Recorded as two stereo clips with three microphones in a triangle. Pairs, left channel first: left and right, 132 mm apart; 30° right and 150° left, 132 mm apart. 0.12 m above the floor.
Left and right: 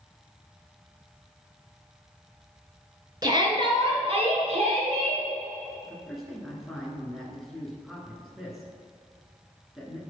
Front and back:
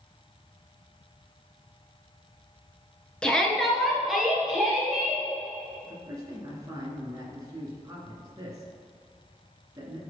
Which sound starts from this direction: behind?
A man speaking, at 5.8 s.